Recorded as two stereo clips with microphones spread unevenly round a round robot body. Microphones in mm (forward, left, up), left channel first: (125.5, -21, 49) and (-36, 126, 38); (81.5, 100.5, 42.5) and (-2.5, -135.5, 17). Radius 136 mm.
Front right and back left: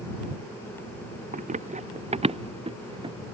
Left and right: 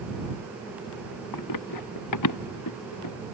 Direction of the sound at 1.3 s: 85° left.